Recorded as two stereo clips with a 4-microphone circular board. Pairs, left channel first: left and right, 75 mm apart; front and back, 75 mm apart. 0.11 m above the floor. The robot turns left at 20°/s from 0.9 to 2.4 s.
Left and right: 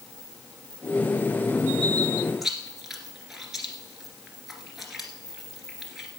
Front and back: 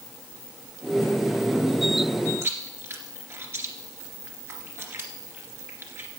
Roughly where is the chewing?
Behind.